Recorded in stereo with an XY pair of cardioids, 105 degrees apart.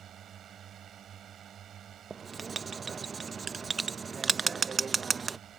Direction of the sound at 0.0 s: 60° right.